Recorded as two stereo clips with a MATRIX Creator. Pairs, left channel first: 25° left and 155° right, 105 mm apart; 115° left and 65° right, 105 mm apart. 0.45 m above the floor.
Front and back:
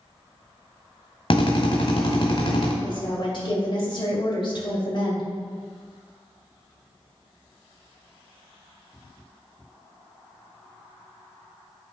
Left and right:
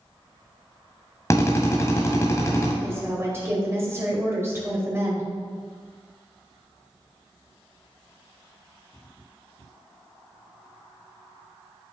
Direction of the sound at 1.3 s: 55° left.